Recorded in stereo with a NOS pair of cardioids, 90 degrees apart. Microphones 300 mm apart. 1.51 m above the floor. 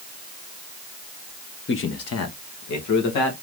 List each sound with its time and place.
1.7 s a man speaking: 40° left, 1.0 m; by 3.3 s 75° left, 2 m